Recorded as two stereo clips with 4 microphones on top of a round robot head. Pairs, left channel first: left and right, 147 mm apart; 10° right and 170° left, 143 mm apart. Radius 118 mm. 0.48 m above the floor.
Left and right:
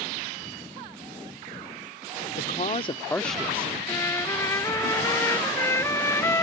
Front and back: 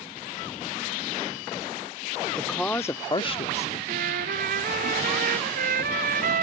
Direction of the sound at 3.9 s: 160° left.